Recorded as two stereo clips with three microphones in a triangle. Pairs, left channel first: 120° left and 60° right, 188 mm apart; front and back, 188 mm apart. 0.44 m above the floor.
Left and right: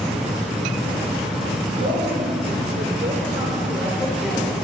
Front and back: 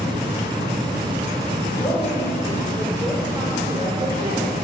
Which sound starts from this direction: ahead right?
A woman speaking, at 1.7 s.